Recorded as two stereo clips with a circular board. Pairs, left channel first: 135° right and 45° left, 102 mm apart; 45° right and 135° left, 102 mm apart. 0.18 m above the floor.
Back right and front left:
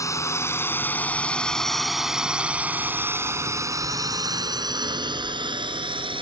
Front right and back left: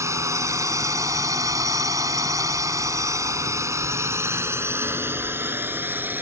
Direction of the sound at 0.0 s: Straight behind.